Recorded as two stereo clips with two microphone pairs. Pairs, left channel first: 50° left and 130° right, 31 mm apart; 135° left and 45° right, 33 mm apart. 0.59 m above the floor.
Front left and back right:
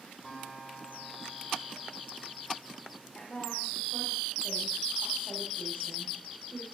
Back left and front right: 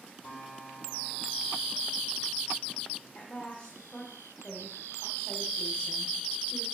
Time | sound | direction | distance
0.2 | a guitar | 135° left | 6 m
3.1 | a woman speaking | 105° left | 1.7 m